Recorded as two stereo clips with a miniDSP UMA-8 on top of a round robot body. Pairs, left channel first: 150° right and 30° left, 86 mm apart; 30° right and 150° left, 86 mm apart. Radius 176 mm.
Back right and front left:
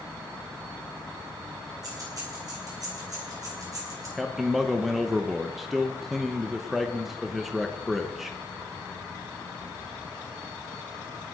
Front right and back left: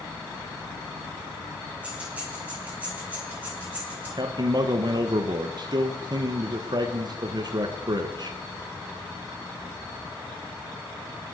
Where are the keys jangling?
75° left, 7.5 m; by 4.1 s 80° left, 9 m.